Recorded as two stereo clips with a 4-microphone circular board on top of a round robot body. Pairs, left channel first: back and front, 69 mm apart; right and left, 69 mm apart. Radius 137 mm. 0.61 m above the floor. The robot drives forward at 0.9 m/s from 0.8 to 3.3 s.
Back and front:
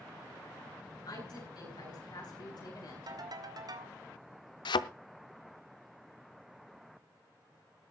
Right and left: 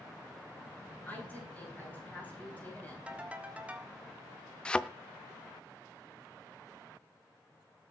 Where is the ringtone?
20° left, 1.9 m.